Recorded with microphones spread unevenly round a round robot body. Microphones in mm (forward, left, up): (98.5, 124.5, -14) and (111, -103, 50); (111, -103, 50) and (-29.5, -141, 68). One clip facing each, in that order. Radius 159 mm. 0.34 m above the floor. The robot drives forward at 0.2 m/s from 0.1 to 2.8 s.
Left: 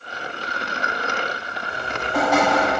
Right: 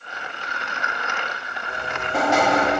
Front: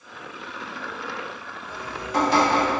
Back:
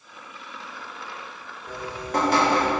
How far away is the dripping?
About 1.0 m.